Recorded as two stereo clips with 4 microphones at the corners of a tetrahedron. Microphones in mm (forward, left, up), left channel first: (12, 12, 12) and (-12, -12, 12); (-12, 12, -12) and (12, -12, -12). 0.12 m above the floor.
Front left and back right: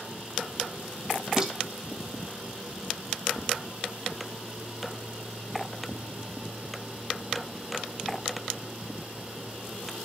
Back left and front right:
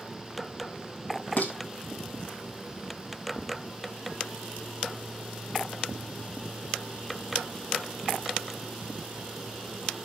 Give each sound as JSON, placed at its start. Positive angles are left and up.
{"t": 1.4, "sound": "dishes clattering", "azimuth_deg": 160, "distance_m": 2.5}